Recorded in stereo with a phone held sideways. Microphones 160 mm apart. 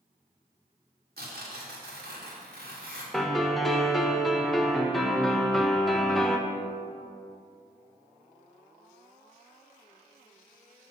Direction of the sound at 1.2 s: 75° right (ahead or behind).